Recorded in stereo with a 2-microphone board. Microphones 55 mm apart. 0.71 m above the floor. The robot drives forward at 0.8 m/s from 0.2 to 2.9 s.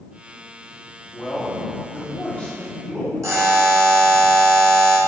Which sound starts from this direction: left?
A man speaking, at 1.1 s.